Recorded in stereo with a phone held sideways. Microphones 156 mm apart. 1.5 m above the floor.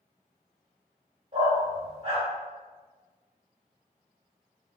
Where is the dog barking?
50° right (ahead or behind), 1.7 m.